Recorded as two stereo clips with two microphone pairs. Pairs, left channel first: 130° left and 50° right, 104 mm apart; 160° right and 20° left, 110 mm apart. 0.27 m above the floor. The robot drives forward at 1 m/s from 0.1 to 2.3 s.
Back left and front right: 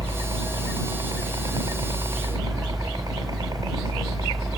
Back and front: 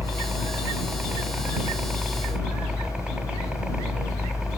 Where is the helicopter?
40° right; by 4.6 s 55° right.